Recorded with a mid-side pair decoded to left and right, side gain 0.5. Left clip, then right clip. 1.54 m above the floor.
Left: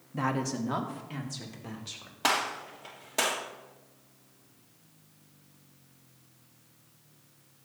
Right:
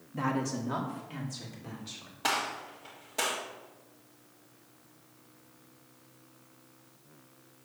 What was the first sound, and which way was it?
A woman speaking, 15° left.